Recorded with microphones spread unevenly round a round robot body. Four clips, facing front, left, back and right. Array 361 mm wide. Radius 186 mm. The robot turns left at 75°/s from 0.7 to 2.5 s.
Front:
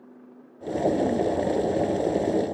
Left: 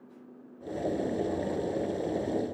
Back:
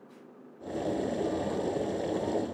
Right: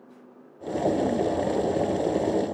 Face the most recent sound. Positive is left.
No sound to turn to.